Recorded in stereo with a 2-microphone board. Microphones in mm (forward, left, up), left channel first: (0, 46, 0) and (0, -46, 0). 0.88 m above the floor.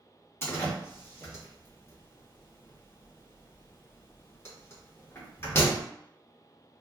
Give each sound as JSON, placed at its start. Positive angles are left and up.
{"t": 0.4, "sound": "a door slam", "side_deg": 25, "distance_m": 1.0}